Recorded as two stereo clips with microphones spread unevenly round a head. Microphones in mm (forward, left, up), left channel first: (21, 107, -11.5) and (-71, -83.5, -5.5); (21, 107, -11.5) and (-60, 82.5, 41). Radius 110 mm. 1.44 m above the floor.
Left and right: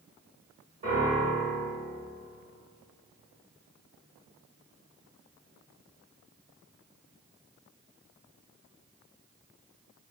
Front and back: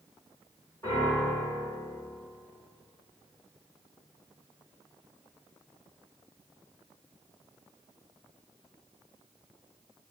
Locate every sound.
0.8 s a piano: 90° right, 1.4 m